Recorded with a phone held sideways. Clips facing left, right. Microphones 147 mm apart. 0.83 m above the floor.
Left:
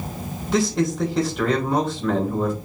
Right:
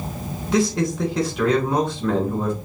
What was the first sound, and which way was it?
A man speaking, centre (ahead or behind).